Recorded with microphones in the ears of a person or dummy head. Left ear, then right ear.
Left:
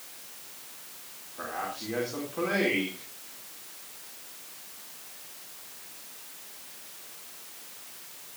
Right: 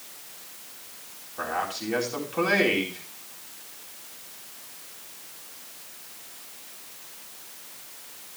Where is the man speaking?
70° right (ahead or behind), 4 m.